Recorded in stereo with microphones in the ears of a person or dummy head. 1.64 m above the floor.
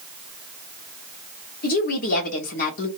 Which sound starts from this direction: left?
A woman speaking, at 1.6 s.